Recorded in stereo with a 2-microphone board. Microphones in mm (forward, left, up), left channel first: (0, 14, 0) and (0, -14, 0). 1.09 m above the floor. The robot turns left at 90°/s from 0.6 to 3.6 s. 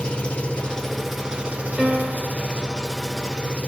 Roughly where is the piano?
Ahead.